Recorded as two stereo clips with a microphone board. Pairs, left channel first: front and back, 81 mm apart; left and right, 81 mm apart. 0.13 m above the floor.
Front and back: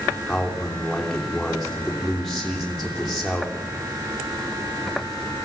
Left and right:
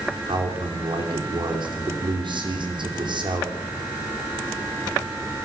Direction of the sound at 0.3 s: 90° right.